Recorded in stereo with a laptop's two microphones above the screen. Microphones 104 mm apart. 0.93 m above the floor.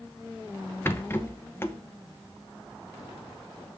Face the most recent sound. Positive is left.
turn(degrees=25)  # may be behind; listen again after turning